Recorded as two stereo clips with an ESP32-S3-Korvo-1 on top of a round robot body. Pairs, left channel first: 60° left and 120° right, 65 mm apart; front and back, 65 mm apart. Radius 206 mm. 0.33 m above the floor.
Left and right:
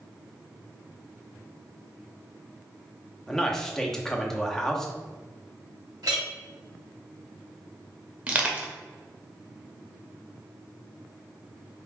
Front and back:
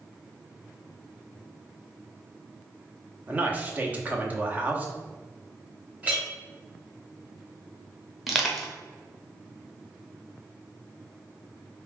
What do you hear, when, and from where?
3.3 s a man speaking: 140° left, 1.0 m
6.0 s a clink: 110° right, 1.6 m
8.3 s crushing: 90° right, 1.2 m